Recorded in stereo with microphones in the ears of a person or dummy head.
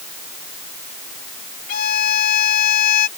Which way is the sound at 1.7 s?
50° left (ahead or behind).